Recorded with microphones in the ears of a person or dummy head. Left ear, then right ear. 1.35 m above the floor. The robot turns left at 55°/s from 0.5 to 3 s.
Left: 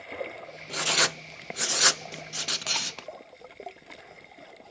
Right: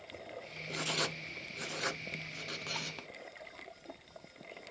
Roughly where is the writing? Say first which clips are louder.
Left 10 dB; left.